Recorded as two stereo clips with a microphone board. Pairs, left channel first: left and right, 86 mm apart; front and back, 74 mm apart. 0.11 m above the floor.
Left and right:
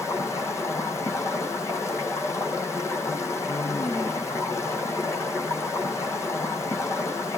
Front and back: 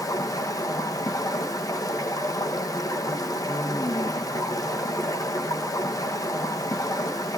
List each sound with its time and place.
0.0 s running water: 35° left, 1.7 m